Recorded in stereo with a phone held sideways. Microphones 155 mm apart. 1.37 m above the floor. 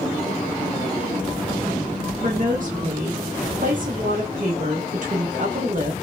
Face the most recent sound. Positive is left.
turn(degrees=-60)  # may be behind; listen again after turning